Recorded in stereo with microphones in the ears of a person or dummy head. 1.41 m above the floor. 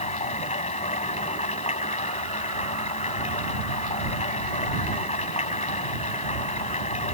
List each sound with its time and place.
0.0 s running water: 30° left (ahead or behind)